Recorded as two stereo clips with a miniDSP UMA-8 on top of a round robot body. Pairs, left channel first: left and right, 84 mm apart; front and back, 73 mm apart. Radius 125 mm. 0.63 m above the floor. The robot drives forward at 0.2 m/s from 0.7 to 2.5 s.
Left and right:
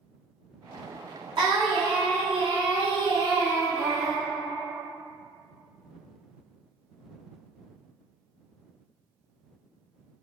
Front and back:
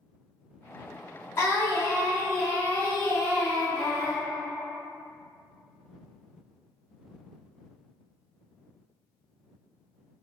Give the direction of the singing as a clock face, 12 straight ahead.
2 o'clock.